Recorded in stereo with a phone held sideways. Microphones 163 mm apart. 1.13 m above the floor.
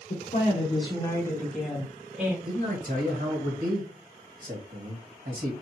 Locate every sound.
0.1 s a woman speaking: 55° left (ahead or behind), 1.1 m; by 2.4 s 10° right (ahead or behind), 1.8 m
2.5 s a man speaking: 60° right (ahead or behind), 1.7 m